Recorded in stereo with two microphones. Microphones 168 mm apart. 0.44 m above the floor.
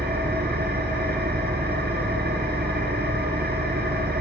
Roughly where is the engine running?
Right.